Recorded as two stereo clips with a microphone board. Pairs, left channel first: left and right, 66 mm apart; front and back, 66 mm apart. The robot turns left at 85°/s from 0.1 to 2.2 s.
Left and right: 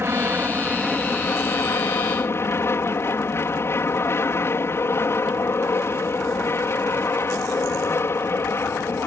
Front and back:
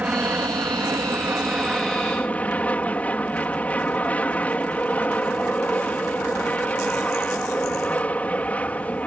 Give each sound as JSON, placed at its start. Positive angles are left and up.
{"t": 0.0, "sound": "an aircraft", "azimuth_deg": -120}